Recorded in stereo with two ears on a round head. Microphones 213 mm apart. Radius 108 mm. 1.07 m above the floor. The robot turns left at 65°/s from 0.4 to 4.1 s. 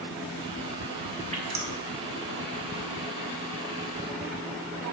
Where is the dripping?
25° right (ahead or behind), 1.7 m; by 1.7 s 50° right (ahead or behind), 1.7 m.